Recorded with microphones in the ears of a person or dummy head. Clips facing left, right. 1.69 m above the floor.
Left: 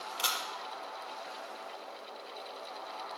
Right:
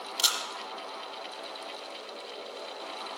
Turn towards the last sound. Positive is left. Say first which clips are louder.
# even
turn(degrees=-20)  # may be behind; listen again after turning